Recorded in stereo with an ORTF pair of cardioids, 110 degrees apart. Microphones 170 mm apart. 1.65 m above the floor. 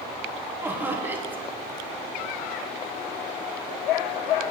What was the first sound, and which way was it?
Laughter, 10° right.